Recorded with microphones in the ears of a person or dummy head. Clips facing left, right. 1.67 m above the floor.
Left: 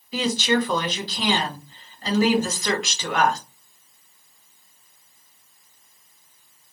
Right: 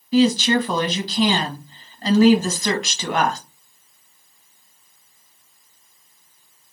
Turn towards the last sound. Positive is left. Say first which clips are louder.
# right 6 dB
turn(degrees=-35)  # may be behind; listen again after turning